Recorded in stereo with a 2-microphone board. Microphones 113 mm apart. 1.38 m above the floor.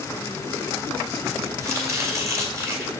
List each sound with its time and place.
1.6 s chopping: 30° right (ahead or behind), 2 m